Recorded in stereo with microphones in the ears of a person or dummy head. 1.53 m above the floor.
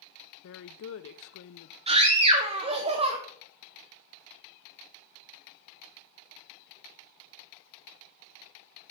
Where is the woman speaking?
75° left (ahead or behind), 0.6 m.